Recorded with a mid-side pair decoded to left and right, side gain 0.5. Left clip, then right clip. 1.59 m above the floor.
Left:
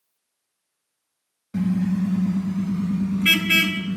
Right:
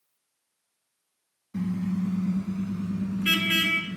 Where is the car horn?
65° left, 4.5 m; by 4.0 s 75° left, 8 m.